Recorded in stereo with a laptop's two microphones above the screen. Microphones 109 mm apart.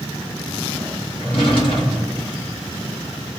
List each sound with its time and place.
1.2 s a drawer: 55° left (ahead or behind), 1.2 m